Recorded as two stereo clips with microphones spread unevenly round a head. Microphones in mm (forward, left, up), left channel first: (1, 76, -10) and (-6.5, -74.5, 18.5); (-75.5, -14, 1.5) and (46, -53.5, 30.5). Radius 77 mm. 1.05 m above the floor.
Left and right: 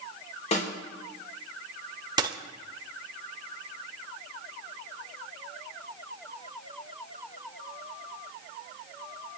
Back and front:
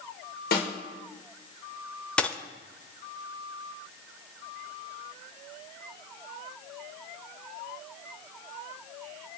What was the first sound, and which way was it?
A snare drum, 140° left.